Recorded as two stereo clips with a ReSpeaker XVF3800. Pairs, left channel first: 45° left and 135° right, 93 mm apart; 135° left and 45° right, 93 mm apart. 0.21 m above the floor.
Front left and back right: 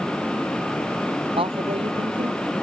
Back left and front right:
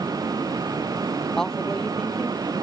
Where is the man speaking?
140° right.